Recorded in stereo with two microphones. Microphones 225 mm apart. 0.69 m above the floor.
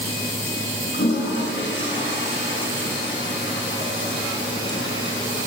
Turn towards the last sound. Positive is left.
turn(degrees=55)  # may be behind; listen again after turning